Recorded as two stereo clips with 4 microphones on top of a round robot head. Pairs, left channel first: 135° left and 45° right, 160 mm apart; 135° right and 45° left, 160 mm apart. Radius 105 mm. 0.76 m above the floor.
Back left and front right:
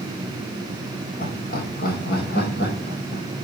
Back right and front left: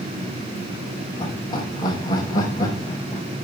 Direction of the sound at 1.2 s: 165° left.